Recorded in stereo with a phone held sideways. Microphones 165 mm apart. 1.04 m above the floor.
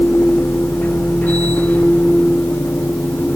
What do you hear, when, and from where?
0.0 s a machine running: 10° left (ahead or behind), 1.3 m